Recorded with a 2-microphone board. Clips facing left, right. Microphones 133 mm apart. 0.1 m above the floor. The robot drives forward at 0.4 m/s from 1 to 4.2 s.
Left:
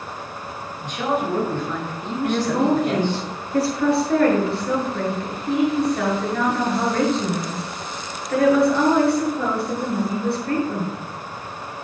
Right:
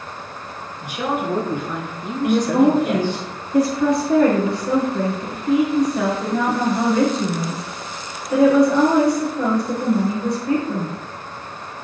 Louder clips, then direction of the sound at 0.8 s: Even; 10° right (ahead or behind).